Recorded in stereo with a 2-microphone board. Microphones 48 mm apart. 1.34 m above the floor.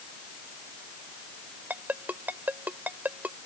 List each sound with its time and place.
1.7 s a ringtone: 40° right (ahead or behind)